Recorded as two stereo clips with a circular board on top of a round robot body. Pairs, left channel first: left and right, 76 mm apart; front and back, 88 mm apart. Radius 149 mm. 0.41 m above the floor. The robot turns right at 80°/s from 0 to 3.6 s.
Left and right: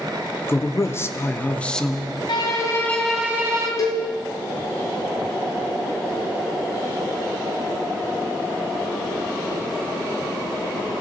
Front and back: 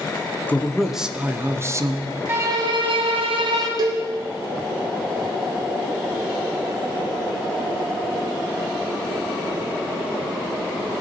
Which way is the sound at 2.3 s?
115° left.